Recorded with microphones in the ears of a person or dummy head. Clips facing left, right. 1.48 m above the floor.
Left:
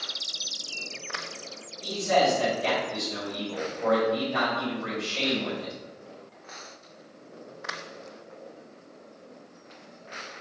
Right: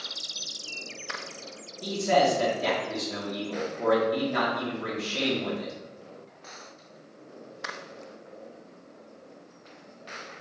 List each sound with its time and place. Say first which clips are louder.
1.8 s a man speaking: right 1 dB; 55° right (ahead or behind), 1.9 m